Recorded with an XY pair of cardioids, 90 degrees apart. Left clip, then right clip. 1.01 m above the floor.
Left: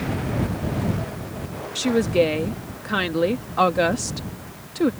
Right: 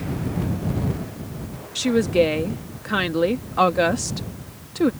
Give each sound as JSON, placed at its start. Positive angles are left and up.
{"t": 1.8, "sound": "a woman speaking", "azimuth_deg": -5}